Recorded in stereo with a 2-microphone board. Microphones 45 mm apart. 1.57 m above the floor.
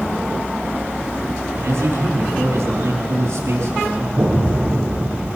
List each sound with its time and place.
1.6 s a man speaking: 85° right, 5 m
4.2 s an explosion: 40° right (ahead or behind), 7.5 m